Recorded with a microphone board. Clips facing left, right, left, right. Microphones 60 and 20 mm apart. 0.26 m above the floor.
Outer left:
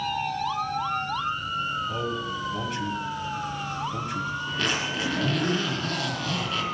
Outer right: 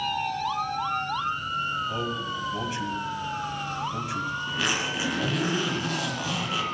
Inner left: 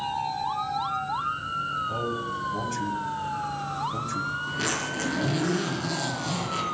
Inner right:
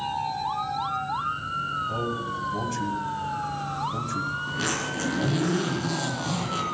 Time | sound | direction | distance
1.9 | a man speaking | 5° right (ahead or behind) | 1.6 m
4.5 | a zipper | 10° right (ahead or behind) | 4 m